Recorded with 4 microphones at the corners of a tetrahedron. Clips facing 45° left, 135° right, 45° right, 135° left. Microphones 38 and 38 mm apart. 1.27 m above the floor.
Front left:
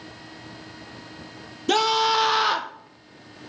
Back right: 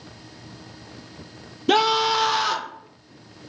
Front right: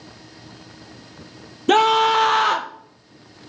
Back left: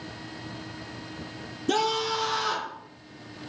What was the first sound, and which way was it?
A scream, 60° right.